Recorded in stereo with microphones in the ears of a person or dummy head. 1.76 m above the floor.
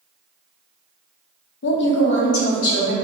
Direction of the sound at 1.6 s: 65° left (ahead or behind).